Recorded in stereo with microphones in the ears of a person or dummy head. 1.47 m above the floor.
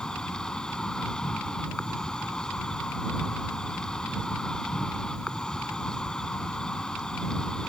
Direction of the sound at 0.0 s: Centre (ahead or behind).